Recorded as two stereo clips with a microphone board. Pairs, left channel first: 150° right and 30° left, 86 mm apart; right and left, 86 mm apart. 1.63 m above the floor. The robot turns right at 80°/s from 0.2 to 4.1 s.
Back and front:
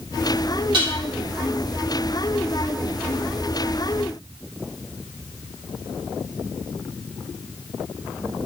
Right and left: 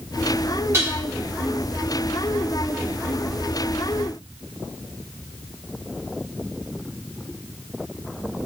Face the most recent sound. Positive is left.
turn(degrees=-55)